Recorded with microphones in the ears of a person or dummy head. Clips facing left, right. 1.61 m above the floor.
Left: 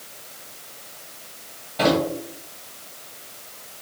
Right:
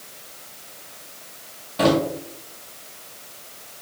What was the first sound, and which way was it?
A drawer, 10° right (ahead or behind).